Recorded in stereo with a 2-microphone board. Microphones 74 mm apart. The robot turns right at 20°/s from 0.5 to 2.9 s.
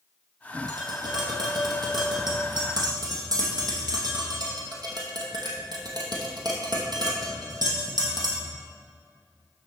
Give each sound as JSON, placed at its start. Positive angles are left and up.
{"t": 0.7, "sound": "tapping", "side_deg": -60, "distance_m": 2.0}